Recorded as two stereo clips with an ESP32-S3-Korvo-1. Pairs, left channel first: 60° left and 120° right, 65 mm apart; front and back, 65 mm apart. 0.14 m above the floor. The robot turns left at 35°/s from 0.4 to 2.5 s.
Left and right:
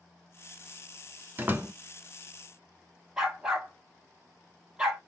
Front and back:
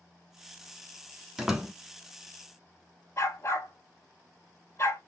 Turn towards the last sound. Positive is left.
turn(degrees=-45)